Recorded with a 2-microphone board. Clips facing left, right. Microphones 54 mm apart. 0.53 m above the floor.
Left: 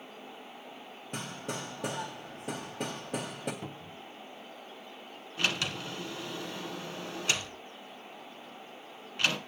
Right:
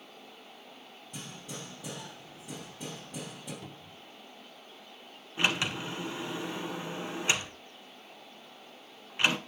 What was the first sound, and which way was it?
Hammering, 65° left (ahead or behind).